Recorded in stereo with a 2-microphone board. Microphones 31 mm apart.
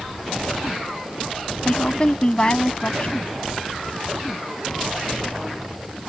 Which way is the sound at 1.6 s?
35° left (ahead or behind).